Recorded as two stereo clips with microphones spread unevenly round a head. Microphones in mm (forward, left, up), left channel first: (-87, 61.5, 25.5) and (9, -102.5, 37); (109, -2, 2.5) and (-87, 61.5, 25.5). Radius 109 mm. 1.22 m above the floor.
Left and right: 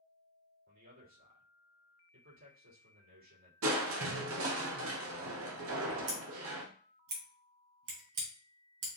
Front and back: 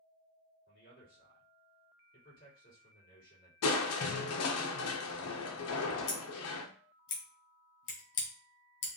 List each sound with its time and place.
0.7 s a man speaking: 65° right, 3 m
3.6 s crushing: 35° right, 0.7 m
6.1 s scissors: 50° right, 2.5 m